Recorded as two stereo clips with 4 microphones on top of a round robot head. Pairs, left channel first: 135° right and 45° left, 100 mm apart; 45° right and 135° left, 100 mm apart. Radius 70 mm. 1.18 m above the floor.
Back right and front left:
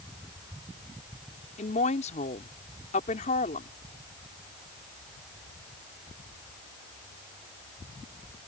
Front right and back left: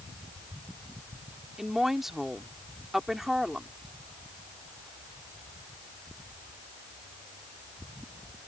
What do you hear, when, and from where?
1.6 s a woman speaking: 140° right